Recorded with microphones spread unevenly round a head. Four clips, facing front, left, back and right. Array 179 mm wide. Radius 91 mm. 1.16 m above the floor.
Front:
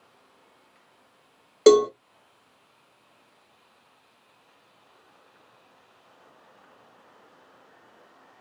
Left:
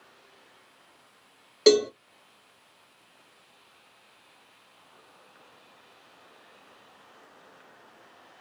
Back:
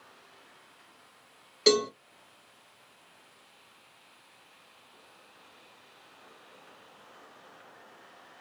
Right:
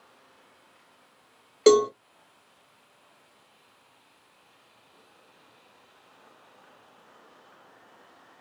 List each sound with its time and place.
1.7 s a cowbell: 5° right, 0.9 m